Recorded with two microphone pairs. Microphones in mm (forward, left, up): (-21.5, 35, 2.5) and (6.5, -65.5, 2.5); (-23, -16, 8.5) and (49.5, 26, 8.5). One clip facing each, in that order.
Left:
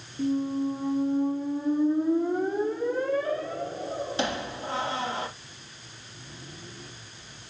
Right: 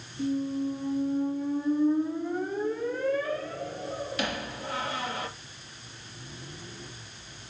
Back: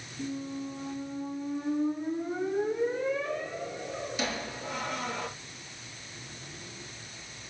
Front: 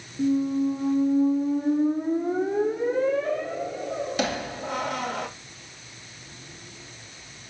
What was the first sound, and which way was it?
A squeak, 45° left.